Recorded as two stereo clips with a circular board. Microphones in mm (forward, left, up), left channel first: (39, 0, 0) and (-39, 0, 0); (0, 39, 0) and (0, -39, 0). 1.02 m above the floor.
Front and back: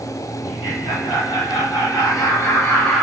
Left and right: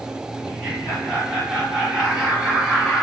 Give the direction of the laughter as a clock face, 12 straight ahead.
12 o'clock.